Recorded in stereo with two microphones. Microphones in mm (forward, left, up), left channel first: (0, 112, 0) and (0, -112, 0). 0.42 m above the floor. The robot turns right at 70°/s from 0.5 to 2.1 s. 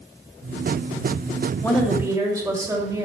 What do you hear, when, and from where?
1.6 s a woman speaking: 165° left, 2.0 m; by 3.0 s 160° right, 2.0 m